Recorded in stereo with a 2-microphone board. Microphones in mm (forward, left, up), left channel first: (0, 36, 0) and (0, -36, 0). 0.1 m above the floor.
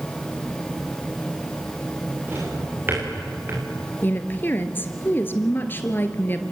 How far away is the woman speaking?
About 1.7 m.